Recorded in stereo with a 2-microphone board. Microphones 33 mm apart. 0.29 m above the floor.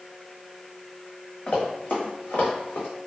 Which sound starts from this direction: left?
Running footsteps, at 1.5 s.